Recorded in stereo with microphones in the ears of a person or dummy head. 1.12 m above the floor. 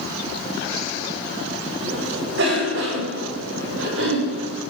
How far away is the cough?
About 4.5 m.